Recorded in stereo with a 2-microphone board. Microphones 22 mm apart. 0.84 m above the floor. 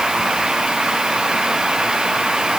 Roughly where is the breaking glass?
I don't hear breaking glass.